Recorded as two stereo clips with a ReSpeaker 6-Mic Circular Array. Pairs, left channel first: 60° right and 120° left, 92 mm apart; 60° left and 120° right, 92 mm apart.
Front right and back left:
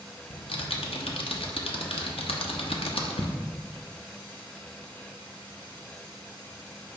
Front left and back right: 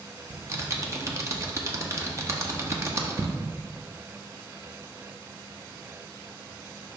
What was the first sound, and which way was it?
Typing on a keyboard, 60° right.